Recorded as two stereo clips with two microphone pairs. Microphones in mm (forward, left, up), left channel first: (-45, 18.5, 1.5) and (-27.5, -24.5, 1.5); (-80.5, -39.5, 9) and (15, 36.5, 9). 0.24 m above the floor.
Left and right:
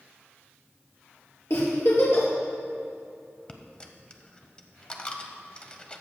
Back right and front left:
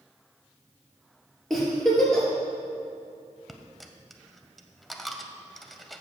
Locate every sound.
1.5 s a giggle: 130° left, 2.5 m
3.5 s a dropped coin: 135° left, 0.6 m